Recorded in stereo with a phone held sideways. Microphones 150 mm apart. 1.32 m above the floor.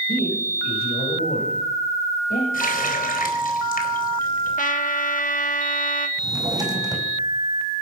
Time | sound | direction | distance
0.1 | a man speaking | 80° left | 8.5 m
2.5 | a running tap | 65° left (ahead or behind) | 4 m
4.6 | a trumpet | 60° left (ahead or behind) | 1.6 m
6.2 | a drawer | 25° right (ahead or behind) | 5 m